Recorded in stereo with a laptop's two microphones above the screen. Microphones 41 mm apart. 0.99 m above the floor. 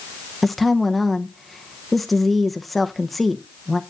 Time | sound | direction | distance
0.4 | a woman speaking | centre (ahead or behind) | 0.8 m